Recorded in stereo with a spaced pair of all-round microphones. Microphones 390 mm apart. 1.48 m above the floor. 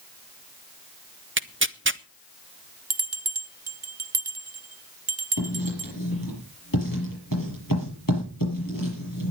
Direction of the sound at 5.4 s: 55° left (ahead or behind).